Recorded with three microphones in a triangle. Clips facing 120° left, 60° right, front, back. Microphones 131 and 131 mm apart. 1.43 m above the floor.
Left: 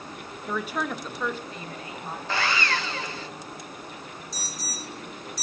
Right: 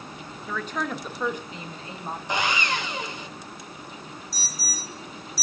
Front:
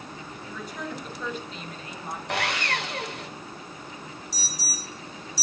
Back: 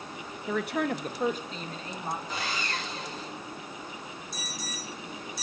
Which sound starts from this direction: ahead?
Sawing, at 2.3 s.